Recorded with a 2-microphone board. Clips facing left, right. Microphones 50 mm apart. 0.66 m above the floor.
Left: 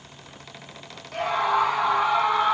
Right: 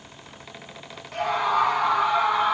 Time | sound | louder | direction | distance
1.1 | a scream | even | 5° left (ahead or behind) | 1.4 m